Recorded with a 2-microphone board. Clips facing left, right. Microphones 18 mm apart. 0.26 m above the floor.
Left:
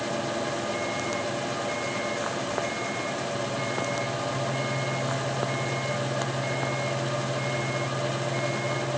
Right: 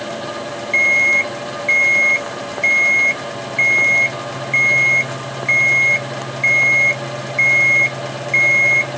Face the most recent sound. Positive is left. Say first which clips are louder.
# right 16 dB
turn(degrees=-70)  # may be behind; listen again after turning